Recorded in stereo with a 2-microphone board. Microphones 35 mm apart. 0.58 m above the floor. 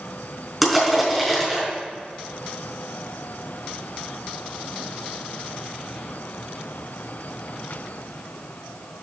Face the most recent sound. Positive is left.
turn(degrees=5)  # may be behind; listen again after turning